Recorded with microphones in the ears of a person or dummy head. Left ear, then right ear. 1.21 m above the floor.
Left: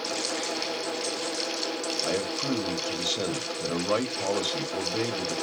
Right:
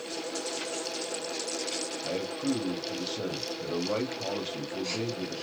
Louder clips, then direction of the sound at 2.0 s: Left 3 dB; 80° left.